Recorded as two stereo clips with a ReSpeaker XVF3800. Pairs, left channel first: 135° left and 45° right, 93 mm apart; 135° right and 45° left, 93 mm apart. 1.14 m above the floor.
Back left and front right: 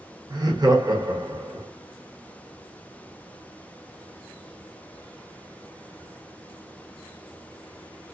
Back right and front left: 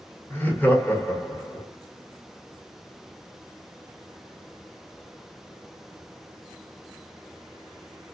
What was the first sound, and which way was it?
Laughter, 70° right.